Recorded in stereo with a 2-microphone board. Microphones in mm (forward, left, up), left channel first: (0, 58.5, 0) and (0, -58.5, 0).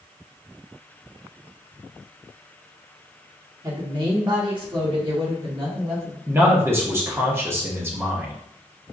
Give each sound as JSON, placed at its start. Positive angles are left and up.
{"t": 3.6, "sound": "a woman speaking", "side_deg": -30, "distance_m": 1.4}
{"t": 6.3, "sound": "a man speaking", "side_deg": -20, "distance_m": 0.9}